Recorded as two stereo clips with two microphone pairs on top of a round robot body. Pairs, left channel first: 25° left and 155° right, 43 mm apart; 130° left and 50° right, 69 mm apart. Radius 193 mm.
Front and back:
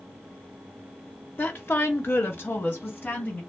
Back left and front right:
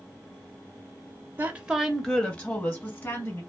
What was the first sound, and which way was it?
A woman speaking, straight ahead.